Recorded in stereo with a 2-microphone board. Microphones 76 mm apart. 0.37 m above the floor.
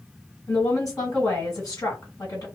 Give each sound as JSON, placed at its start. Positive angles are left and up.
{"t": 0.5, "sound": "a woman speaking", "side_deg": 40, "distance_m": 1.9}